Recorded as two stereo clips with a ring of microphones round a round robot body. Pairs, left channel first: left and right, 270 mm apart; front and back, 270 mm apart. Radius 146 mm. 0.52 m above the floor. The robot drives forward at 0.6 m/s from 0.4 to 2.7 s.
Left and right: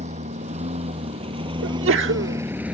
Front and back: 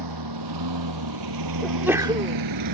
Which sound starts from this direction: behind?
A lawn mower, at 0.0 s.